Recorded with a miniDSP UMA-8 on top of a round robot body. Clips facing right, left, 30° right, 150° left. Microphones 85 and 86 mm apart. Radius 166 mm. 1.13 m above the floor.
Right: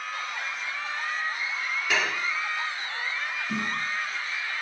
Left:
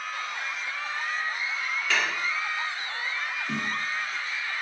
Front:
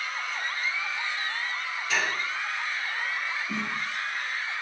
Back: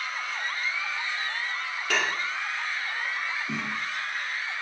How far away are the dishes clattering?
About 2.5 m.